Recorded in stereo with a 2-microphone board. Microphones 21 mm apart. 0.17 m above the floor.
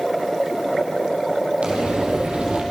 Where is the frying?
75° right (ahead or behind), 7 m.